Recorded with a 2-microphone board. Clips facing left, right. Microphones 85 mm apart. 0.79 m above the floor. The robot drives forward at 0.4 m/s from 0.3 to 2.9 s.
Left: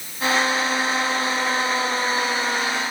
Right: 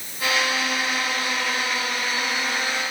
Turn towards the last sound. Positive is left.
No sound to turn to.